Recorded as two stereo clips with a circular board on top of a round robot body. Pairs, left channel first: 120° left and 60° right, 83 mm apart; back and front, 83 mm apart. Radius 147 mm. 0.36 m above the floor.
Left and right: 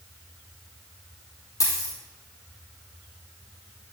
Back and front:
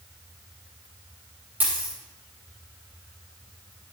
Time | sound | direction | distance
1.6 | a dropped coin | 70° left | 3.5 m